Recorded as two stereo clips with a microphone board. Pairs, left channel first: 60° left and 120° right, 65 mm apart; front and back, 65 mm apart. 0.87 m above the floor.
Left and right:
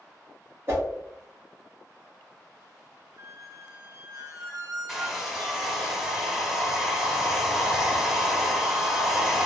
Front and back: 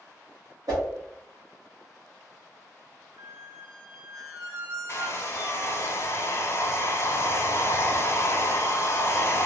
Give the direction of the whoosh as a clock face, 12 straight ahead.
6 o'clock.